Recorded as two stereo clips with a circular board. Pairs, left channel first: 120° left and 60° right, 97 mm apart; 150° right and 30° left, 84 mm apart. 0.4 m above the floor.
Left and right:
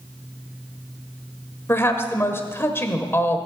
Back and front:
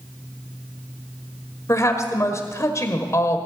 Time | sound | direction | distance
1.7 | a woman speaking | 175° left | 1.4 m